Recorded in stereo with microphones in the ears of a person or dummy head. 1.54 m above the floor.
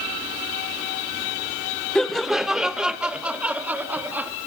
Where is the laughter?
Centre (ahead or behind), 0.8 m; by 4.3 s 10° right (ahead or behind), 2.5 m.